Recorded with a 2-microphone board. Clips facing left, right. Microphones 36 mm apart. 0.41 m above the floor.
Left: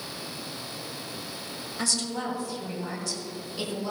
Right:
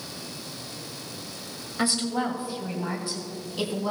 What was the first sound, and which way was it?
A woman speaking, 25° right (ahead or behind).